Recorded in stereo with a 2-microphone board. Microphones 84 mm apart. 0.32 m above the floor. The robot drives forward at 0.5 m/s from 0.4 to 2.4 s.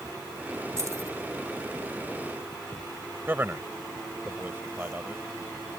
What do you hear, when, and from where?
0.8 s keys jangling: 40° right (ahead or behind)
3.3 s a man speaking: 25° right (ahead or behind)